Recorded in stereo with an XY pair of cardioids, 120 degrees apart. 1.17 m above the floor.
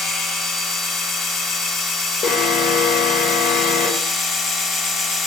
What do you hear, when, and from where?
0.0 s a machine running: 60° left, 1.4 m
2.2 s an alarm: 70° left, 1.4 m